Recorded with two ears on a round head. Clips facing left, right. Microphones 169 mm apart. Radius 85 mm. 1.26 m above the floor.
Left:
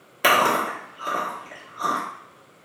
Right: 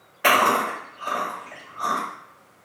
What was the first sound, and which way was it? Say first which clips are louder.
Chewing: even; 45° left (ahead or behind).